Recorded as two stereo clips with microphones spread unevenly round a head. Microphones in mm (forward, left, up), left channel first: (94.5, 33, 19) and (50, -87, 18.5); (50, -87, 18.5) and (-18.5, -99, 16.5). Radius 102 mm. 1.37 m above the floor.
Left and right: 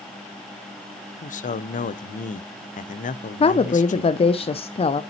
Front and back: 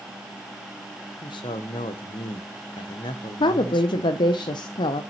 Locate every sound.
1.2 s a man speaking: 45° left, 0.6 m
3.4 s a woman speaking: 25° left, 0.5 m